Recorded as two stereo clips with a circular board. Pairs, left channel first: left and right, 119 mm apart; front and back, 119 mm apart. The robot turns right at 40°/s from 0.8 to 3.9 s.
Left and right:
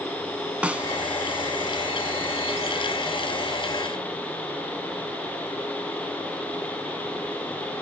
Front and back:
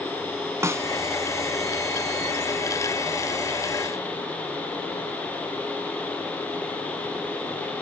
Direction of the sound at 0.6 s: 155° right.